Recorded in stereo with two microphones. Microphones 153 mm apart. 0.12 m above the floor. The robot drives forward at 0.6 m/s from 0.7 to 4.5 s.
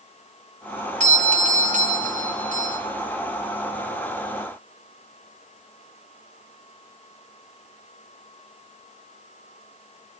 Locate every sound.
1.0 s a doorbell: 50° right (ahead or behind), 2.5 m; by 2.8 s 55° right (ahead or behind), 2.5 m